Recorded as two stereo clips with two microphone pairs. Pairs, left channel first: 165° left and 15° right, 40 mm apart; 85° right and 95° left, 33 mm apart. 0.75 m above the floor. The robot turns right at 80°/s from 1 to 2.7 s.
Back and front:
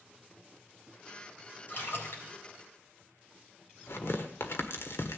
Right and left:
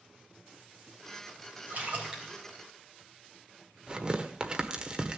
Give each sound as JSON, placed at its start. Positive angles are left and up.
{"t": 1.7, "sound": "a splash", "azimuth_deg": 125, "distance_m": 3.5}
{"t": 3.9, "sound": "tearing paper", "azimuth_deg": 160, "distance_m": 1.3}